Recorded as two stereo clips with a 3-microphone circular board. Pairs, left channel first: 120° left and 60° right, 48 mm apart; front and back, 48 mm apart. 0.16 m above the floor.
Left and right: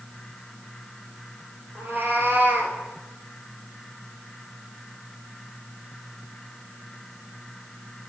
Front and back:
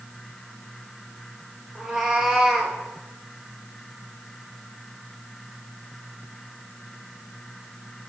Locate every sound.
1.8 s a cat meowing: 105° right, 1.9 m; by 2.8 s 100° right, 1.3 m